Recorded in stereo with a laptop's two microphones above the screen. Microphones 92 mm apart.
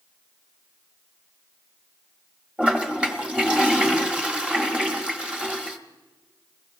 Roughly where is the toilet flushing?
Centre.